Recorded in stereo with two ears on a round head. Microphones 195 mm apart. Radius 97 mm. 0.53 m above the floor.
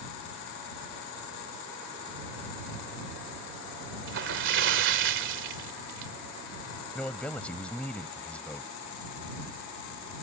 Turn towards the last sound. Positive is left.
turn(degrees=5)  # may be behind; listen again after turning